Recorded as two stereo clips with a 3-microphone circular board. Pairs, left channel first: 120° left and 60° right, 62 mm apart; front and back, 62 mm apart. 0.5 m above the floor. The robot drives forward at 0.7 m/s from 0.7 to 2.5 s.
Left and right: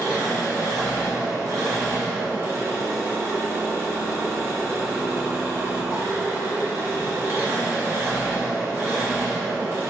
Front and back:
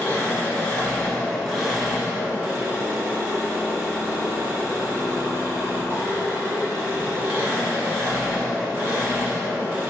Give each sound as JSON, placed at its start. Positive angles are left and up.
{"t": 0.0, "sound": "an engine running", "azimuth_deg": -65, "distance_m": 1.2}